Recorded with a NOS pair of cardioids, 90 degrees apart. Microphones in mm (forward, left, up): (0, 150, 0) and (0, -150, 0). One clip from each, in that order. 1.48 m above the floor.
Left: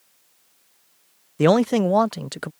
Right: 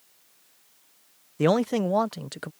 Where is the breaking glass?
I don't hear breaking glass.